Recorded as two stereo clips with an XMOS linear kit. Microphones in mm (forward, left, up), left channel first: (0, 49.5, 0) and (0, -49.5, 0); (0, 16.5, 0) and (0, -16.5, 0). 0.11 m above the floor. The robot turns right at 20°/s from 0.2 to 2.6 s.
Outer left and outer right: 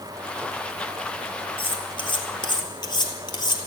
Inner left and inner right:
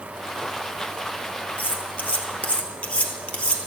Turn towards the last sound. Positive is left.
turn(degrees=50)  # may be behind; listen again after turning